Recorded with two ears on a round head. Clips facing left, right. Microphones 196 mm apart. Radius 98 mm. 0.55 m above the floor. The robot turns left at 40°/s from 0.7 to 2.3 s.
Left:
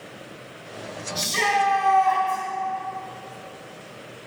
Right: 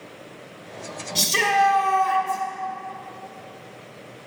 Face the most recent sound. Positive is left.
turn(degrees=-145)